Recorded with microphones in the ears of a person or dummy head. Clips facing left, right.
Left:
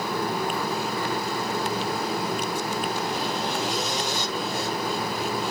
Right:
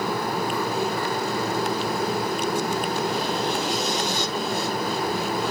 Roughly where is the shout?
No shout in this recording.